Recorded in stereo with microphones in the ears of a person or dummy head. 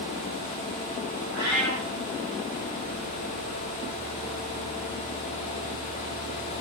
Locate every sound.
1.3 s a cat meowing: centre (ahead or behind), 1.8 m